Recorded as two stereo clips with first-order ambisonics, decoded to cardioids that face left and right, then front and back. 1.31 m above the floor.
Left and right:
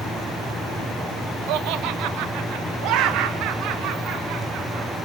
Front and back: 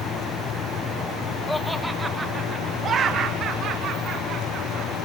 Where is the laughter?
80° right, 1.0 m; by 4.9 s 130° right, 3 m.